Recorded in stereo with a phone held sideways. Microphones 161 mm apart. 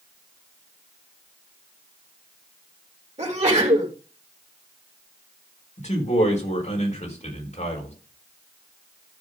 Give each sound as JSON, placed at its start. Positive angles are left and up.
{"t": 3.2, "sound": "a sneeze", "side_deg": -40, "distance_m": 3.5}
{"t": 5.8, "sound": "a man speaking", "side_deg": 45, "distance_m": 4.5}